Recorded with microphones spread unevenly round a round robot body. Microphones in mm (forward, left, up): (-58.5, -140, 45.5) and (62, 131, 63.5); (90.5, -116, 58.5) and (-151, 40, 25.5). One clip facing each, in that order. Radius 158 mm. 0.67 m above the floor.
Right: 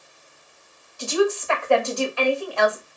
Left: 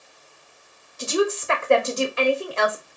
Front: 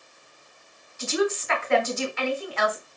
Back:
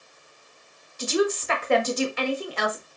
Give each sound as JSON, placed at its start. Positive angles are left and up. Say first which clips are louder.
{"t": 1.0, "sound": "a woman speaking", "louder": "right 1 dB, back 1 dB", "azimuth_deg": 130, "distance_m": 0.7}